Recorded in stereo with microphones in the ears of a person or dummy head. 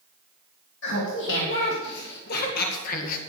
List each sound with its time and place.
0.8 s laughter: 75° left (ahead or behind), 4 m; by 3.2 s 50° left (ahead or behind), 1.9 m